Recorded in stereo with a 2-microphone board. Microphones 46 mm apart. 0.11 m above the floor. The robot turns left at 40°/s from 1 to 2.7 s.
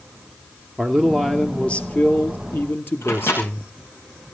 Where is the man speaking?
Straight behind, 2 m; by 3.7 s 110° left, 2 m.